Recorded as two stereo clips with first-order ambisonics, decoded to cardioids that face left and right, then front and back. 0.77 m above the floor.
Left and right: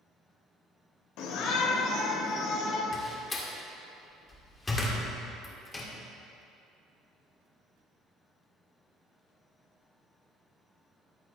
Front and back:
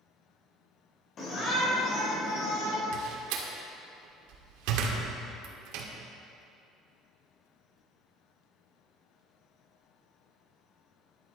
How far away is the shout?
About 2.5 m.